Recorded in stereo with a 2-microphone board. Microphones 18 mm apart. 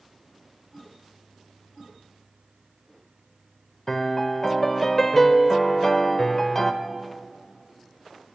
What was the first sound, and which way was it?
A piano, 20° left (ahead or behind).